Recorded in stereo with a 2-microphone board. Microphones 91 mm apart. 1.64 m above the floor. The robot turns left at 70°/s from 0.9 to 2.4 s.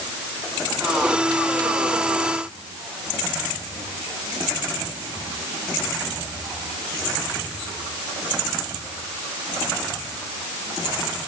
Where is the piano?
No piano in this recording.